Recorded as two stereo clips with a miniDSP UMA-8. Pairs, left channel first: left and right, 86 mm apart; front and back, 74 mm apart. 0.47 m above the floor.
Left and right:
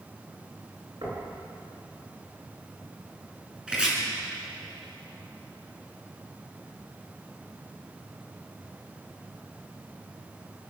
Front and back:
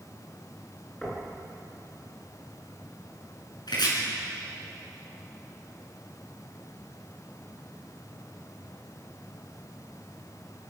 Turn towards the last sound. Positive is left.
turn(degrees=-10)